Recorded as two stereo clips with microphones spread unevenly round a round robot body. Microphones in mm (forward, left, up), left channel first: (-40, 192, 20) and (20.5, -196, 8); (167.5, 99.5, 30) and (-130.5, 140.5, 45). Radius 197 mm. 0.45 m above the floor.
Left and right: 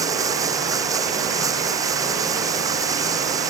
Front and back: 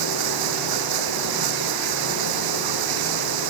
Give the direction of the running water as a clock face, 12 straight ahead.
5 o'clock.